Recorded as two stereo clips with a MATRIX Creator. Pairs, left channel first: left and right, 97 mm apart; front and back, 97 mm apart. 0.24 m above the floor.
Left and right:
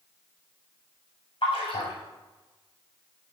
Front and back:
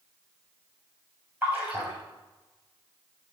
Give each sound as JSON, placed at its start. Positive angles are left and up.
{"t": 1.4, "sound": "a splash", "azimuth_deg": 115, "distance_m": 7.0}